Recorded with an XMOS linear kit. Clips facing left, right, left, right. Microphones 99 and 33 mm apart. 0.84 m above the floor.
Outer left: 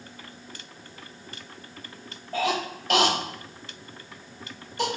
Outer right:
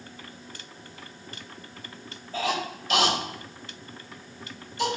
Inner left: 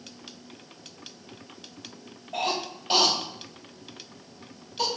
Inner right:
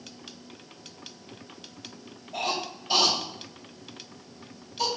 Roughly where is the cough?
Left.